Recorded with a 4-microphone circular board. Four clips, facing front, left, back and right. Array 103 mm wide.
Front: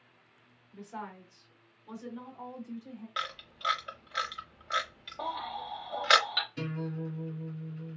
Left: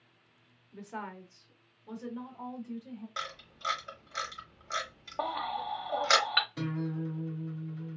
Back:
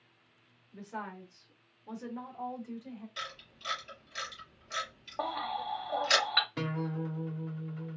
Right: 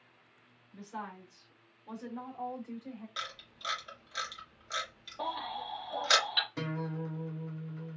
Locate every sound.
0.7 s a woman speaking: 95° left, 1.0 m; by 3.1 s 125° right, 1.2 m
3.2 s a camera shutter: 20° left, 0.8 m
5.2 s a baby crying: 125° left, 0.8 m
6.6 s a guitar: 160° right, 0.9 m